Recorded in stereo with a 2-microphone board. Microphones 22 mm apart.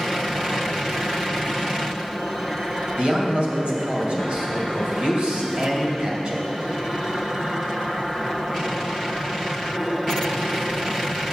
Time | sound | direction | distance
3.0 | a man speaking | 50° right (ahead or behind) | 1.9 m